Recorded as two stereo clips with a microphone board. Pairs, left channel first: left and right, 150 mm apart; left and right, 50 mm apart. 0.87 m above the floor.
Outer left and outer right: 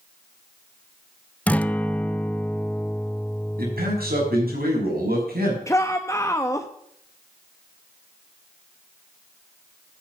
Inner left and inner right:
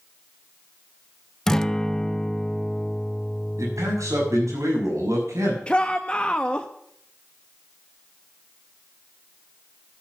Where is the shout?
20° left (ahead or behind), 0.7 m.